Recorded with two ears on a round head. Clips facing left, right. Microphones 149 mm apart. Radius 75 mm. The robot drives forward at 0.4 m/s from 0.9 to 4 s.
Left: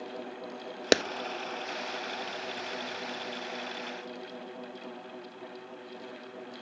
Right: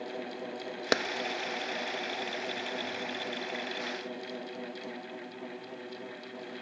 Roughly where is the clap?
Left.